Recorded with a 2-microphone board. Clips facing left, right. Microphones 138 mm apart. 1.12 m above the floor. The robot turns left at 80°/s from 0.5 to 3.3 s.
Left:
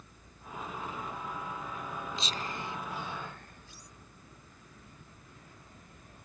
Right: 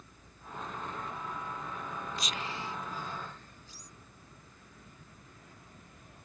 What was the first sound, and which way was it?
Whispering, 25° left (ahead or behind).